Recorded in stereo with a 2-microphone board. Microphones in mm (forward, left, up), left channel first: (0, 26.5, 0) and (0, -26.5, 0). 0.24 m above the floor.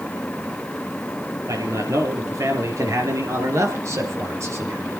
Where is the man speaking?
70° right (ahead or behind), 4.5 m; by 5.0 s 50° right (ahead or behind), 3 m.